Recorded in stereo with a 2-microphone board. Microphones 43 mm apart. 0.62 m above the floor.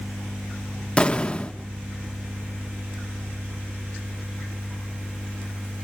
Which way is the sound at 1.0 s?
25° left (ahead or behind).